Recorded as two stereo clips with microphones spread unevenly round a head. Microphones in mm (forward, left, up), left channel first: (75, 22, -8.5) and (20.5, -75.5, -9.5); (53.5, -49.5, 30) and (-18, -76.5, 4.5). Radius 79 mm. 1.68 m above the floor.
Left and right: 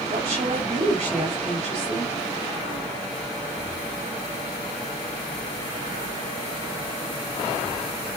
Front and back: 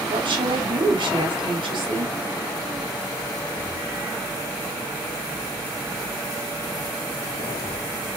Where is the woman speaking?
170° right, 3.5 m.